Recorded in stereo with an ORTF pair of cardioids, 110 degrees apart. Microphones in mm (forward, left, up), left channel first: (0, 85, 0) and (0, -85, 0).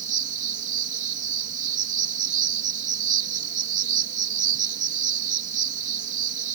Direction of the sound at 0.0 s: 50° right.